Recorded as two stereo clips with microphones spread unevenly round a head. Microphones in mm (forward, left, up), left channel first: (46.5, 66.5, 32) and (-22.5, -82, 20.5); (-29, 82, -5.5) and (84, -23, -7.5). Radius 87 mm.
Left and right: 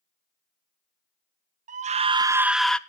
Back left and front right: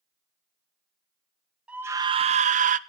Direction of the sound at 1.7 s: 125° right.